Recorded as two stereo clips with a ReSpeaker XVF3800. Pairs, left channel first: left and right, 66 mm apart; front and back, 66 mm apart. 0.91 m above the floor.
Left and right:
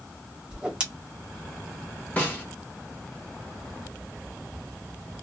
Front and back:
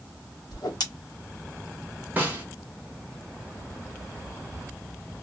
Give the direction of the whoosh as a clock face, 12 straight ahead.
1 o'clock.